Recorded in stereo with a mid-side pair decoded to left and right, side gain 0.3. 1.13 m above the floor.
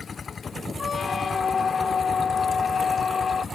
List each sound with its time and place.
0.8 s a squeak: 60° left